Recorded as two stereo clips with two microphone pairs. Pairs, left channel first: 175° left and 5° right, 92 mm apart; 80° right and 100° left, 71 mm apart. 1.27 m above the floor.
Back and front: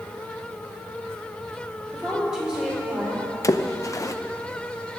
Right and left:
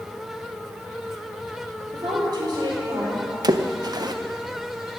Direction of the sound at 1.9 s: 80° left.